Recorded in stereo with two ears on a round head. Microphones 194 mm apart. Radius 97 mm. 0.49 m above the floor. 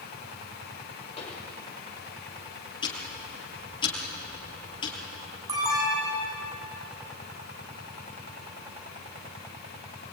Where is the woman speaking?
I don't hear a woman speaking.